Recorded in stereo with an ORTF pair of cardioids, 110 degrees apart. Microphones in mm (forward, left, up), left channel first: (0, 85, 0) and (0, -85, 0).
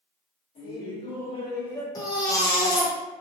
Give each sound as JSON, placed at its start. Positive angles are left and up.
{"t": 0.6, "sound": "laughter", "azimuth_deg": 45, "distance_m": 2.0}
{"t": 1.9, "sound": "a baby crying", "azimuth_deg": 20, "distance_m": 0.8}